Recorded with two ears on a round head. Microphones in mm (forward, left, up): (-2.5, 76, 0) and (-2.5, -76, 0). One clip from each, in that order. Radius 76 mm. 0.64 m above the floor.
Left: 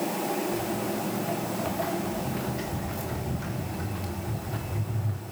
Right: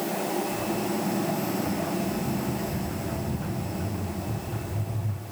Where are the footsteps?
55° left (ahead or behind), 5 m; by 5.2 s 70° left (ahead or behind), 3.5 m.